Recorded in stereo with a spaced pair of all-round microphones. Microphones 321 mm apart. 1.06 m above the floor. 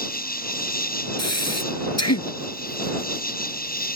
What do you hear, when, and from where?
0.0 s an insect: 25° left (ahead or behind)
1.2 s breathing: 50° left (ahead or behind)